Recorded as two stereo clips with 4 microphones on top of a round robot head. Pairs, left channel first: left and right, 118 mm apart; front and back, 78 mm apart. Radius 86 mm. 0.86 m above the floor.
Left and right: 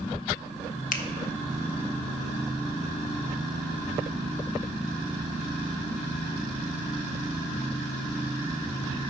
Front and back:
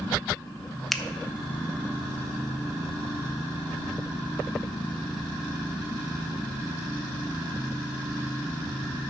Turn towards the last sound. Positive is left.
turn(degrees=90)